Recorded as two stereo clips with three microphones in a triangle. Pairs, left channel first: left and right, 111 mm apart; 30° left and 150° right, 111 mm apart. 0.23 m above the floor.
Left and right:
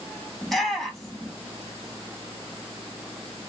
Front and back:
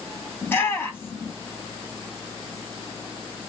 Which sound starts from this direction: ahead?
A shout, at 0.4 s.